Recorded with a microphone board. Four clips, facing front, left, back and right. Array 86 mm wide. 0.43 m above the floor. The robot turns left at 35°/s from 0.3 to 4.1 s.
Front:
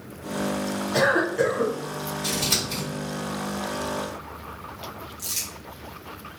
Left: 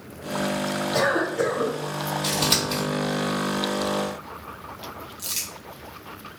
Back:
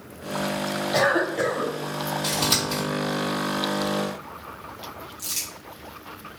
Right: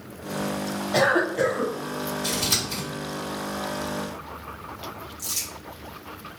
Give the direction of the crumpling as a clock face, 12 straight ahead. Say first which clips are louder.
Even, even; 9 o'clock.